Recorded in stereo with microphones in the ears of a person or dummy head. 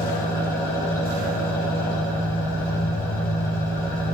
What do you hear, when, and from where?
0.0 s an engine running: 20° left (ahead or behind), 6.5 m